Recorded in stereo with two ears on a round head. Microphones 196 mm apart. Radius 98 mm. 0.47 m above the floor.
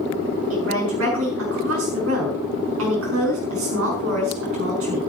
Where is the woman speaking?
65° right (ahead or behind), 6 m.